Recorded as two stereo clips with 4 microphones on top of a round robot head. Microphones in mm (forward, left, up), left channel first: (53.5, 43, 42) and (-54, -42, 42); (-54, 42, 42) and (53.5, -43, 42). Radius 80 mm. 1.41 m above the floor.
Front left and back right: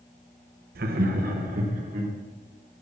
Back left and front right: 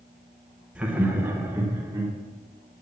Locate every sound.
0.8 s laughter: 120° right, 0.9 m; by 2.1 s 105° right, 1.8 m